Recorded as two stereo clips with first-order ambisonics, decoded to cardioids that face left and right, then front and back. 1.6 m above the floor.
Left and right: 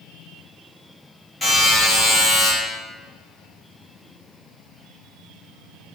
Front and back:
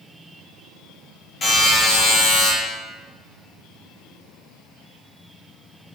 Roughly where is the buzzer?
Ahead.